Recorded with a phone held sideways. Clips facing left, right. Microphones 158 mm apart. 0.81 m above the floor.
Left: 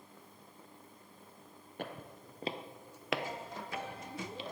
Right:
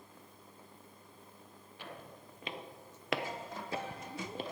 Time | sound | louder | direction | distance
1.8 | footsteps | left 5 dB | 50° left (ahead or behind) | 1.3 m